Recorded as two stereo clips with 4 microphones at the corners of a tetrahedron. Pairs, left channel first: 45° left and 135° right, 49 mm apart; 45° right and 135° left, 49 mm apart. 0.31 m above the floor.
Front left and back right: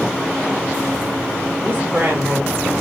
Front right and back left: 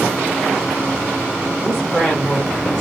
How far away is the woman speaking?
About 1.1 m.